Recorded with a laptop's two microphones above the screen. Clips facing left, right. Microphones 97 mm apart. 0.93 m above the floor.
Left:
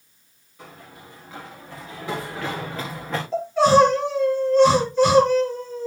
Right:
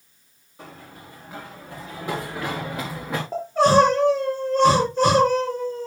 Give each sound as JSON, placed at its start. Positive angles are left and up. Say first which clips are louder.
{"t": 0.6, "sound": "running footsteps", "louder": "right 1 dB", "side_deg": -30, "distance_m": 6.0}
{"t": 3.3, "sound": "crying", "louder": "left 1 dB", "side_deg": -40, "distance_m": 4.5}